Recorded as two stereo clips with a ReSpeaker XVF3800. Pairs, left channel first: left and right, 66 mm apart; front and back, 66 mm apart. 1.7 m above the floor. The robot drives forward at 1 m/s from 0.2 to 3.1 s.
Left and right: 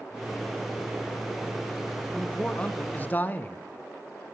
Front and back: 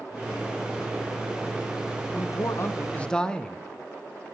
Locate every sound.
2.1 s a man speaking: 15° left, 1.3 m; by 3.6 s 65° left, 0.7 m